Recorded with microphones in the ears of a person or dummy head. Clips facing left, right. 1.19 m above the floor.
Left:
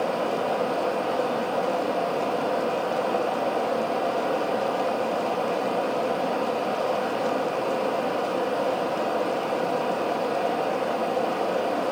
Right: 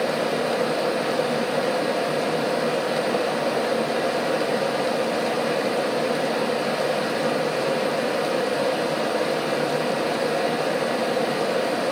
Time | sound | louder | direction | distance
0.0 | a fan | right 2 dB | 20° right (ahead or behind) | 1.2 m